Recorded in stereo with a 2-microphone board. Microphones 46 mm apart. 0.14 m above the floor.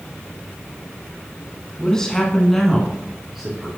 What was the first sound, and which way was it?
A man speaking, 15° left (ahead or behind).